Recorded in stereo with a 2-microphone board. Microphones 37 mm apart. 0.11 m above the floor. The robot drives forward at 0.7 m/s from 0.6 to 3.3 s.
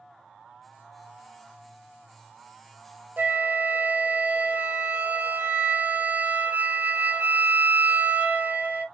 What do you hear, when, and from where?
3.2 s a flute: 50° right (ahead or behind), 0.5 m; by 8.8 s 45° right (ahead or behind), 0.6 m